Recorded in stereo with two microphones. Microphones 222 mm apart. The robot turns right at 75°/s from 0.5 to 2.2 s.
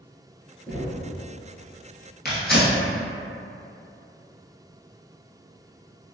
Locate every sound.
0.7 s knocking: 5° left (ahead or behind), 1.4 m; by 1.1 s 20° left (ahead or behind), 1.4 m
2.2 s tearing paper: 45° left (ahead or behind), 1.4 m